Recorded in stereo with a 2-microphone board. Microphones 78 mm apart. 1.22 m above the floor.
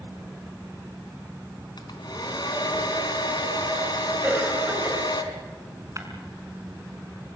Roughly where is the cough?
Right.